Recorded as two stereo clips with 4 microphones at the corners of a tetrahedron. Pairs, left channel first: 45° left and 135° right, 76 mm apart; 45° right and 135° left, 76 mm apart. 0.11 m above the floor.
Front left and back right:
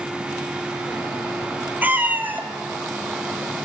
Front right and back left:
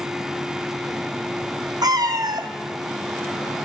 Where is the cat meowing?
160° left, 0.7 m.